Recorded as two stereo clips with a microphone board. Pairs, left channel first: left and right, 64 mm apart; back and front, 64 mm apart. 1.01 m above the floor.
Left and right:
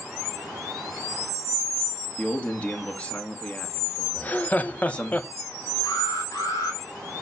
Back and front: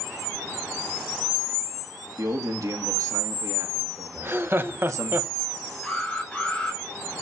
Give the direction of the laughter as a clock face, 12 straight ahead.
11 o'clock.